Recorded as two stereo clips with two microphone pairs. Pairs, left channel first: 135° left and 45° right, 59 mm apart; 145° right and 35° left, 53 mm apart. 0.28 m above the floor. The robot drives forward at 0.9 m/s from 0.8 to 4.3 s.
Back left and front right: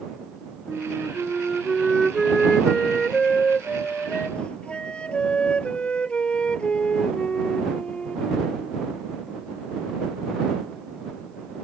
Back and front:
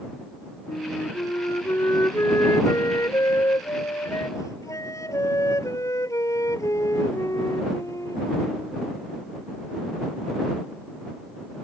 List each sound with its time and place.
0.7 s a flute: 115° right; by 8.7 s 150° right